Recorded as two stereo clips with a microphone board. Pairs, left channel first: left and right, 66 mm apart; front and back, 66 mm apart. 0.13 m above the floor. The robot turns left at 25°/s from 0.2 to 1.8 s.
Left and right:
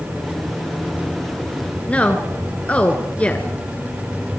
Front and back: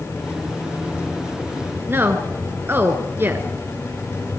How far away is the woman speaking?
About 1.7 m.